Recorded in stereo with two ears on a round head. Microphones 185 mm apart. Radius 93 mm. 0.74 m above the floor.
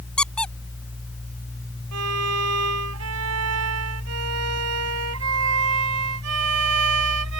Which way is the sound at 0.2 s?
5° left (ahead or behind).